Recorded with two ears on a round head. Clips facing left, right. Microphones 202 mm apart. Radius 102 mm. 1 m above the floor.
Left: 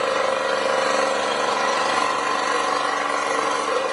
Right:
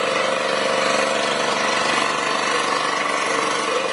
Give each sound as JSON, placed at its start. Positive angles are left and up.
{"t": 0.0, "sound": "an engine running", "side_deg": -35, "distance_m": 1.2}